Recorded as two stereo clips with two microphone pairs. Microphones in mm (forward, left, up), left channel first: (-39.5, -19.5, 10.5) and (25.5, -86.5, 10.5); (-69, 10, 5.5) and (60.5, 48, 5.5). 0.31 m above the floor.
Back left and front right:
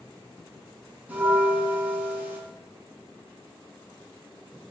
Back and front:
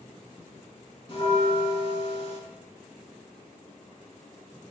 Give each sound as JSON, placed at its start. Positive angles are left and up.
{"t": 1.1, "sound": "a bell", "azimuth_deg": -120, "distance_m": 3.5}